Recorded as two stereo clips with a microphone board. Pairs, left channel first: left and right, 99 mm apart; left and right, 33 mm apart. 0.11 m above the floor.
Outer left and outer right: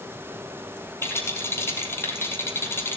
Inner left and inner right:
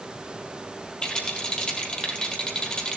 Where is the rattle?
25° left (ahead or behind), 3 m.